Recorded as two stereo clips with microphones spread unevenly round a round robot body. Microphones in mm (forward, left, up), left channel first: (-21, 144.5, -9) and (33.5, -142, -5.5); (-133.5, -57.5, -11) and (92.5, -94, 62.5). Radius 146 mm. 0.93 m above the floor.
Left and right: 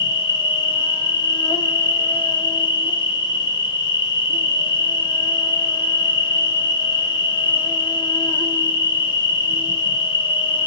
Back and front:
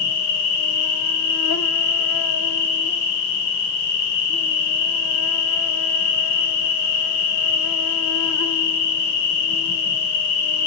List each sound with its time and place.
0.0 s an insect: 175° left, 0.9 m